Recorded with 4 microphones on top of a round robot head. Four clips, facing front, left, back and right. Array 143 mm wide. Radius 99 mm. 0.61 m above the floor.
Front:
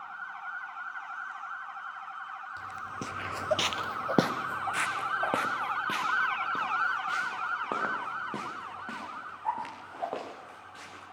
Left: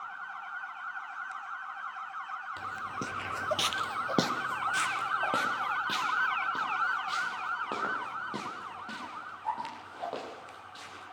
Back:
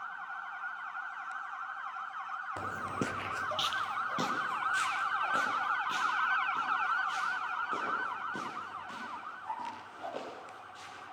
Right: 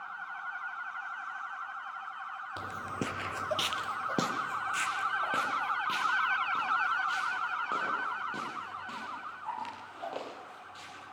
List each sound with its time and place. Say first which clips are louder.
2.6 s footsteps: right 2 dB, back 5 dB; 160° right, 1.1 m; by 11.0 s 15° left, 11.5 m